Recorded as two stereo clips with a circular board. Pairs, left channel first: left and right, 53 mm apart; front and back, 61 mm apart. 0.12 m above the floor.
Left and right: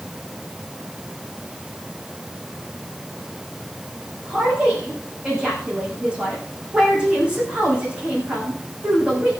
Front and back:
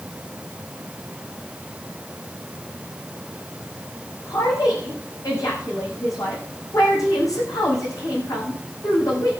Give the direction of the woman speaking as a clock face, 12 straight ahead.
1 o'clock.